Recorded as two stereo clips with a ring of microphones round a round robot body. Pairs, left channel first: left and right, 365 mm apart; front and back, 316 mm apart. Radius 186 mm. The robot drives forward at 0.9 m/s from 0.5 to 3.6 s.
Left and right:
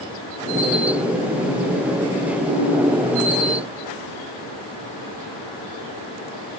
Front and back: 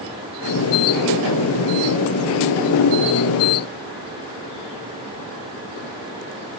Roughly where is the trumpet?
No trumpet in this recording.